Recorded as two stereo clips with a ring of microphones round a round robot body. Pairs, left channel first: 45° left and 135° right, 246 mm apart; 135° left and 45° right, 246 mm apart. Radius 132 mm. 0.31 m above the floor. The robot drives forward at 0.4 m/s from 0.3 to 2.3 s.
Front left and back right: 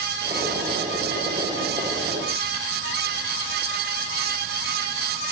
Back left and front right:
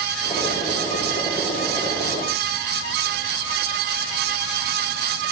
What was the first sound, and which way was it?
Only background noise.